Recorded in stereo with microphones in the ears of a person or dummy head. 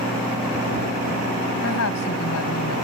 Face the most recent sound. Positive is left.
turn(degrees=75)  # may be behind; listen again after turning